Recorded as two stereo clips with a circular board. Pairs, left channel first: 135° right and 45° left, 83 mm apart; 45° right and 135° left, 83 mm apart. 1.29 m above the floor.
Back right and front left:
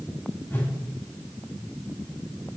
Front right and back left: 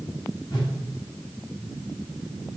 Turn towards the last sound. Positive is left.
turn(degrees=-70)